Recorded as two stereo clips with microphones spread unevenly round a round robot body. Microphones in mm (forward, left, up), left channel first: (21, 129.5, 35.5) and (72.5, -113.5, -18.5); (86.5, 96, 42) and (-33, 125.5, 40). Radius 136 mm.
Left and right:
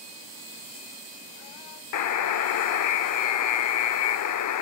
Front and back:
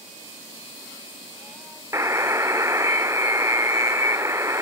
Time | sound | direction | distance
1.9 | a buzzer | 100° left | 1.0 m